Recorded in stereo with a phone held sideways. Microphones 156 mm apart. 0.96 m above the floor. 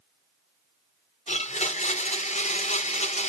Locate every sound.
1.3 s a blender: 50° left (ahead or behind), 0.6 m